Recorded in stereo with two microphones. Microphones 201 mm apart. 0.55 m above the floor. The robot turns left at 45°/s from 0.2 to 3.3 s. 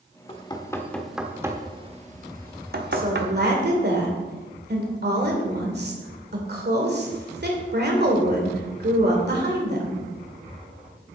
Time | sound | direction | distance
0.3 | knocking | 30° left (ahead or behind) | 1.0 m
2.9 | a woman speaking | 45° right (ahead or behind) | 2 m